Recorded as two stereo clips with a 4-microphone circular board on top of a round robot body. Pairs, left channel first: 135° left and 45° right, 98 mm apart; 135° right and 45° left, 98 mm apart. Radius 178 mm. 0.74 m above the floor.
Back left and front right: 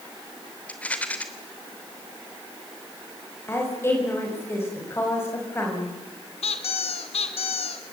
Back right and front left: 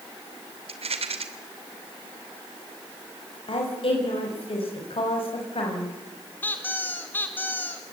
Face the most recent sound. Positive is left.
turn(degrees=155)